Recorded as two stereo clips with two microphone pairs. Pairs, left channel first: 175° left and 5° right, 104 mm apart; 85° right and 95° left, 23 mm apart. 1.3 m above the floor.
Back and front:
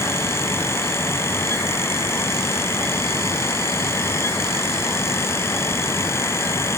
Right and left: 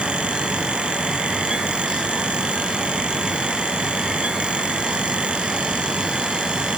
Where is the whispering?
No whispering in this recording.